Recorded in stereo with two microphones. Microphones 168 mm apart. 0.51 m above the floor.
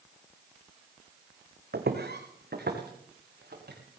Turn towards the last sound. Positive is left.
turn(degrees=-70)  # may be behind; listen again after turning